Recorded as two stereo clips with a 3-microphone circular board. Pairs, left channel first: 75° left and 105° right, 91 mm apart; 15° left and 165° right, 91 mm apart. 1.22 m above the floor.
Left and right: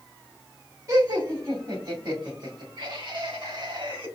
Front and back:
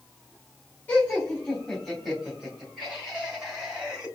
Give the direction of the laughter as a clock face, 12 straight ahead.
2 o'clock.